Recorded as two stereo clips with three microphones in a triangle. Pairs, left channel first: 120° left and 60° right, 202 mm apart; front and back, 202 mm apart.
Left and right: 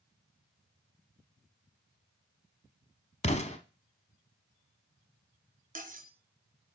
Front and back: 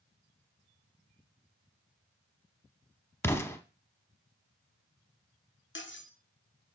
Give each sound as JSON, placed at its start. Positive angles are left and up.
{"t": 3.2, "sound": "an explosion", "azimuth_deg": 75, "distance_m": 0.8}
{"t": 5.8, "sound": "cutlery clinking", "azimuth_deg": -15, "distance_m": 0.8}